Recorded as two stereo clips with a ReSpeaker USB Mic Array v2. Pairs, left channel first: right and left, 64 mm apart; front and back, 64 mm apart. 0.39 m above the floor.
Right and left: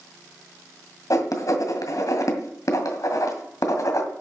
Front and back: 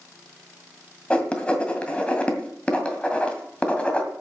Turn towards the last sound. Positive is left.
turn(degrees=-70)